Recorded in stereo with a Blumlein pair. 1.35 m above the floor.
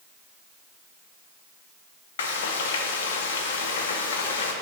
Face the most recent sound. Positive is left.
turn(degrees=60)